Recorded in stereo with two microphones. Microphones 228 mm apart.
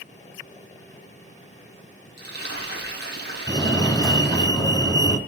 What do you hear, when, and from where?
2.2 s frying: 45° right (ahead or behind), 5.5 m
3.5 s a fire alarm: 15° left (ahead or behind), 3 m